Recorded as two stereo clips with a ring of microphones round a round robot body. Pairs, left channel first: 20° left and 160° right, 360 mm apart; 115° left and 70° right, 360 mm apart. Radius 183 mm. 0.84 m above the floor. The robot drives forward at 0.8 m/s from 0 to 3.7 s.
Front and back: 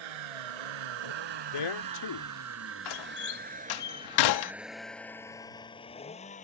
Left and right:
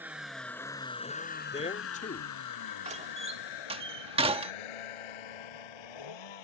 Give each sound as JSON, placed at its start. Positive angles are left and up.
{"t": 0.0, "sound": "a vehicle", "azimuth_deg": -155}
{"t": 1.5, "sound": "a man speaking", "azimuth_deg": 40}
{"t": 2.9, "sound": "a door slam", "azimuth_deg": 5}